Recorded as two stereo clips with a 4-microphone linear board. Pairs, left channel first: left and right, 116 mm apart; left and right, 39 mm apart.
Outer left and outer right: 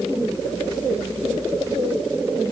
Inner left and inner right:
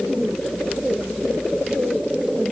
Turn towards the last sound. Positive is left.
No sound to turn to.